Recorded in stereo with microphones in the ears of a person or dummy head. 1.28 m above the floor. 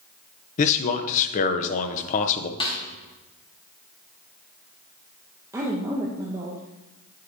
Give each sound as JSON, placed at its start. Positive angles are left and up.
{"t": 0.6, "sound": "a man speaking", "side_deg": 45, "distance_m": 0.8}
{"t": 2.6, "sound": "a snare drum", "side_deg": 30, "distance_m": 1.1}
{"t": 5.5, "sound": "a woman speaking", "side_deg": -15, "distance_m": 0.7}